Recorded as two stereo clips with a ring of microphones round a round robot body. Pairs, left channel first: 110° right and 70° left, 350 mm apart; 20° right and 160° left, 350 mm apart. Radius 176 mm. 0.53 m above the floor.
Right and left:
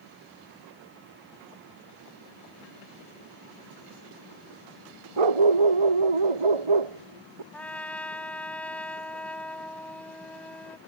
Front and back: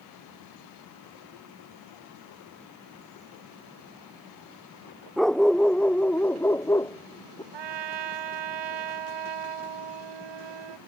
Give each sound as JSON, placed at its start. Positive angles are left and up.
{"t": 5.2, "sound": "a dog barking", "azimuth_deg": 65}
{"t": 7.5, "sound": "a trumpet", "azimuth_deg": 160}